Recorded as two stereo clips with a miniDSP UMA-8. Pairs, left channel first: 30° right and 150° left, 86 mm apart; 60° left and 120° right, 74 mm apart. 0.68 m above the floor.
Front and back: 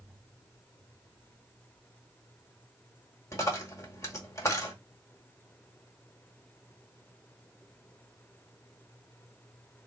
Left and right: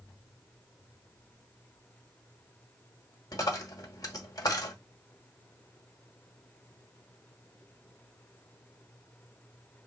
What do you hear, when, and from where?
3.3 s a dropped coin: 25° left, 1.2 m